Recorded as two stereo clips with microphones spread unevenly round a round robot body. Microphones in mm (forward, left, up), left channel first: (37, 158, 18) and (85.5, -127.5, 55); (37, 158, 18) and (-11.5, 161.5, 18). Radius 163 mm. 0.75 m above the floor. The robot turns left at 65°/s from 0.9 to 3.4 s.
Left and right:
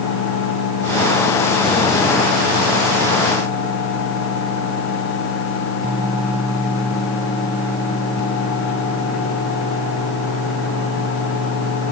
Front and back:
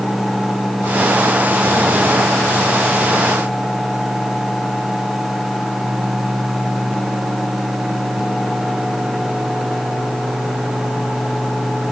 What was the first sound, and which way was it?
Only background noise.